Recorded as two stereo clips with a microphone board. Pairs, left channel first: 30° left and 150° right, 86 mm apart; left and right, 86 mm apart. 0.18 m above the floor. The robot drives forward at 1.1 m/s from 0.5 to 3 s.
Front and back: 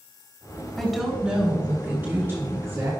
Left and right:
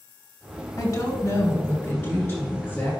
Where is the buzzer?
I don't hear a buzzer.